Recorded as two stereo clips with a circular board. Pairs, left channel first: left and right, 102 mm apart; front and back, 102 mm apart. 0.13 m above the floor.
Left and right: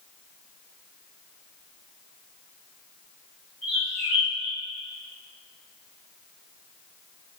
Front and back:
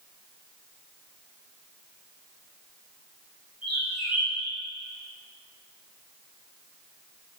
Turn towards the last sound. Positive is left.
turn(degrees=30)